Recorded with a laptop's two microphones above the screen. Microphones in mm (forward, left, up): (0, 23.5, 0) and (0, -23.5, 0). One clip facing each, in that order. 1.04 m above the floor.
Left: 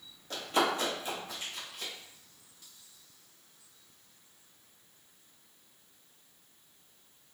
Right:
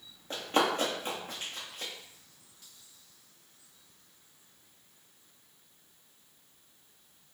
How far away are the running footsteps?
About 1.1 m.